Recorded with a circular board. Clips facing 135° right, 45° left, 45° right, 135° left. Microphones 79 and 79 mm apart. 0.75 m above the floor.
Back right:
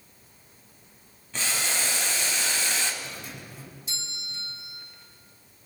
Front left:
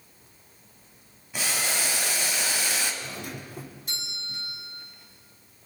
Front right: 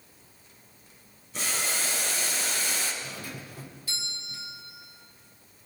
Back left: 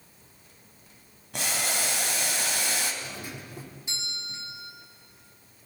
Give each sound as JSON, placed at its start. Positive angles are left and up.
{"t": 1.3, "sound": "boiling", "azimuth_deg": 125, "distance_m": 3.5}
{"t": 3.0, "sound": "a doorbell", "azimuth_deg": 70, "distance_m": 2.5}